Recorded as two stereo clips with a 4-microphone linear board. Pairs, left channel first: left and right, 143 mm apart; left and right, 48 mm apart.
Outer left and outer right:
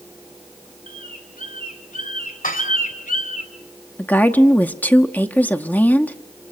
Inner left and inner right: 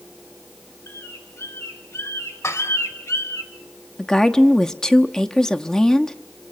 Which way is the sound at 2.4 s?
75° left (ahead or behind).